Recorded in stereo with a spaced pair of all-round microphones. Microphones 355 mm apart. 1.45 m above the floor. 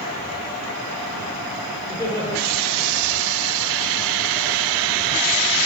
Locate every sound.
1.9 s laughter: 5° left (ahead or behind), 5.5 m